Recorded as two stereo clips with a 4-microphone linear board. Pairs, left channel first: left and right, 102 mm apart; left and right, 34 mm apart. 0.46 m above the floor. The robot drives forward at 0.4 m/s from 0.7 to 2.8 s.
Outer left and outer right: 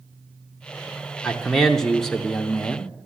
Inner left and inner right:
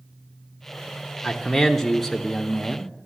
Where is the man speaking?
5° left (ahead or behind), 0.8 m.